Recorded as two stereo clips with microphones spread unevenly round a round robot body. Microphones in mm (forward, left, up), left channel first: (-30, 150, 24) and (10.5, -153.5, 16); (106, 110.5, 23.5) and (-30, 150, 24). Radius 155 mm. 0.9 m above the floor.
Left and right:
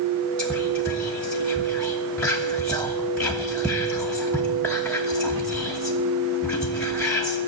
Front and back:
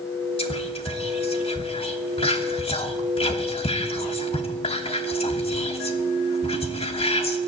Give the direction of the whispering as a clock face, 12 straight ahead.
12 o'clock.